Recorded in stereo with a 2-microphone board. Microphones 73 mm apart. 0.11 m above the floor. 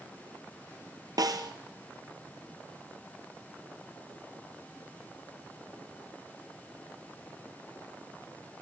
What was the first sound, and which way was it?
A snare drum, 65° right (ahead or behind).